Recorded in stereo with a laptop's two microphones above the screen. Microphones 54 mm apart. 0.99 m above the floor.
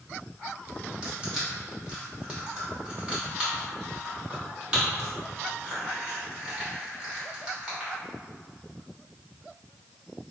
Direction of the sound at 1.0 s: 15° right (ahead or behind).